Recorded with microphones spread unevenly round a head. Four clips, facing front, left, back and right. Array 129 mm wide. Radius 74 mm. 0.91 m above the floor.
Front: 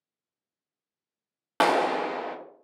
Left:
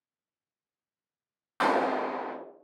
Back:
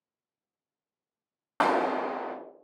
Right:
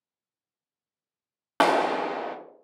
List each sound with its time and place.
1.6 s a clap: 55° right, 0.6 m